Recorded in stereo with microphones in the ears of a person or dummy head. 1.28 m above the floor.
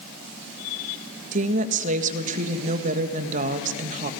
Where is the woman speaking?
45° right (ahead or behind), 1.5 m.